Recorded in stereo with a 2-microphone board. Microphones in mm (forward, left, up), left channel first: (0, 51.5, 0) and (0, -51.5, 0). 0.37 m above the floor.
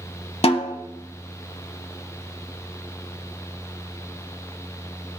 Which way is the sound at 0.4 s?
65° left (ahead or behind).